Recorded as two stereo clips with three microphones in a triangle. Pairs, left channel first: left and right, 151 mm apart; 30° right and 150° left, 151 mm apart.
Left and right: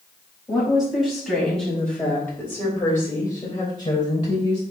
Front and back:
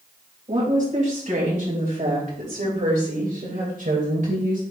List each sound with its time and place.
0.5 s a woman speaking: 175° right, 4 m; by 4.6 s 140° left, 3 m